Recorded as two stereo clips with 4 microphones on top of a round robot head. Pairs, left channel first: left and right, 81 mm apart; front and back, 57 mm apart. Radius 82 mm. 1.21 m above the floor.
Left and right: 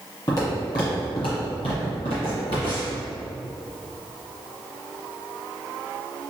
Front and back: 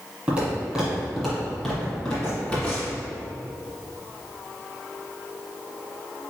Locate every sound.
0.3 s footsteps: 125° left, 1.4 m; by 3.0 s 55° left, 2.0 m